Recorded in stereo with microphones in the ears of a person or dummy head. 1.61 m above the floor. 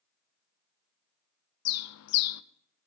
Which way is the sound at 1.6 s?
85° left.